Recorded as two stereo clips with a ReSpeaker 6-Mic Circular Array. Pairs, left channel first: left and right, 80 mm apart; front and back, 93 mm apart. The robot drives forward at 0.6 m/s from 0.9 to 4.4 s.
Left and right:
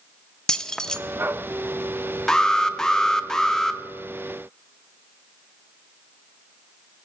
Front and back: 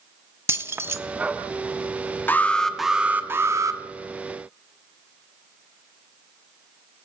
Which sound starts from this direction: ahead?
An alarm, at 2.3 s.